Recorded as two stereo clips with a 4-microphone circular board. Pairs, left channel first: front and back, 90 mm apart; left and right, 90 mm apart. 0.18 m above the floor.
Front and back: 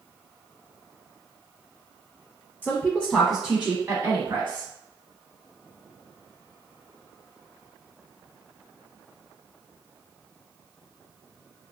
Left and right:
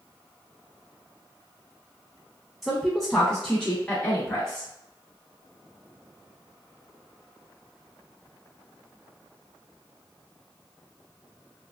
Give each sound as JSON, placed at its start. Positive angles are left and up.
{"t": 2.6, "sound": "a woman speaking", "azimuth_deg": -5, "distance_m": 1.1}